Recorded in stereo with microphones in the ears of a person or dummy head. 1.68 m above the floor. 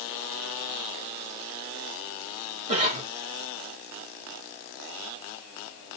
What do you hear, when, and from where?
2.7 s a cough: 30° right (ahead or behind), 1.3 m